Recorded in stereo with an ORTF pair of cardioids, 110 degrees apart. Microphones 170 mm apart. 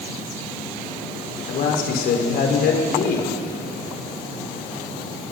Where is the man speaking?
70° left, 4 m.